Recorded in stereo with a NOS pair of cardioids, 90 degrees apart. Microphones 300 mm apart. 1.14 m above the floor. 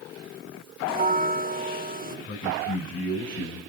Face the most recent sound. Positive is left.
turn(degrees=45)